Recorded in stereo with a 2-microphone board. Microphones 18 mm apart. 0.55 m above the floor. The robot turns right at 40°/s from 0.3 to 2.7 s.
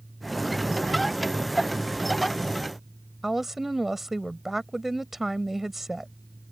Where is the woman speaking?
15° right (ahead or behind).